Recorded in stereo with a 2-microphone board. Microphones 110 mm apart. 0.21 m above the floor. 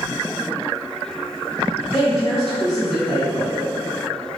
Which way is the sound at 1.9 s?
Centre (ahead or behind).